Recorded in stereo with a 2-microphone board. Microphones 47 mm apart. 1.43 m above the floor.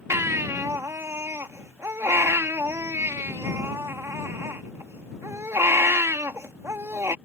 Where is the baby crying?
75° right (ahead or behind).